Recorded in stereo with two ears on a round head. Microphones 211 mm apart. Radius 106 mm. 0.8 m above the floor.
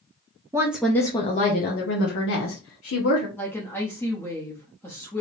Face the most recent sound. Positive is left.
turn(degrees=10)  # may be behind; listen again after turning